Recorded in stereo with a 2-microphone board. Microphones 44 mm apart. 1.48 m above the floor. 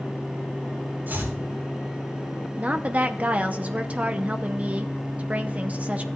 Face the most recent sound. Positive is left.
turn(degrees=-30)  # may be behind; listen again after turning